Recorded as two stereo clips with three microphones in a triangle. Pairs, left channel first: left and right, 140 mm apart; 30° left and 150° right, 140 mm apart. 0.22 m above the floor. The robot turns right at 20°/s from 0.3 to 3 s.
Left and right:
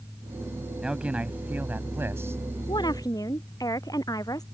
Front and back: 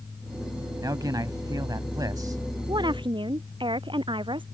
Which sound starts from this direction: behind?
A man speaking, at 0.8 s.